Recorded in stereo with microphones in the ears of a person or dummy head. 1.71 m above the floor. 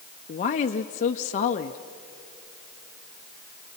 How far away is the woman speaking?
About 0.7 m.